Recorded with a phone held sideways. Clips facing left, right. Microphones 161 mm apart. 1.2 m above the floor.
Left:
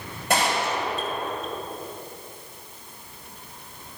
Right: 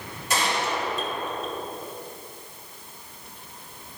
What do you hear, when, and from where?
0.3 s a gunshot: 60° left (ahead or behind), 3 m